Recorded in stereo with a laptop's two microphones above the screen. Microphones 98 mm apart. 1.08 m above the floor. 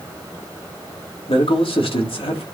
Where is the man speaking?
70° left (ahead or behind), 2.5 m.